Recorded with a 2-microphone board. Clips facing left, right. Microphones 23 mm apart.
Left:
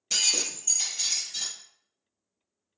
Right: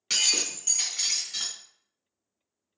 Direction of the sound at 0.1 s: 65° right (ahead or behind).